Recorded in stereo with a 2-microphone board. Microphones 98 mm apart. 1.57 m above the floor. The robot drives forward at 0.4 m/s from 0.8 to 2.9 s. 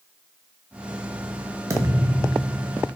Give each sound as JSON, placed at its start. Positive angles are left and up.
{"t": 1.7, "sound": "a thud", "side_deg": -30, "distance_m": 0.9}